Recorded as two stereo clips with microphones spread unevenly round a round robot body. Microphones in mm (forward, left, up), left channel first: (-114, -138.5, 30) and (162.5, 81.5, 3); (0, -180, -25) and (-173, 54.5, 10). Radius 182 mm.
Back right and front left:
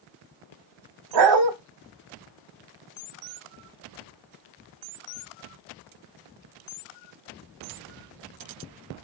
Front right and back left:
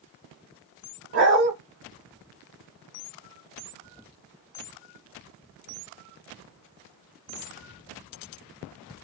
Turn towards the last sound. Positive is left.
turn(degrees=75)